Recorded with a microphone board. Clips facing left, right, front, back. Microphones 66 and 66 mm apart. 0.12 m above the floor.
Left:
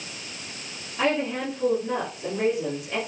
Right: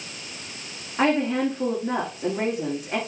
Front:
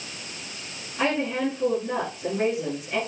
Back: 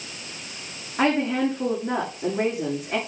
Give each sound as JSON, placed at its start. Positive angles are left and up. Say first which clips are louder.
{"t": 1.0, "sound": "a woman speaking", "louder": "right 4 dB, back 3 dB", "azimuth_deg": -130, "distance_m": 7.0}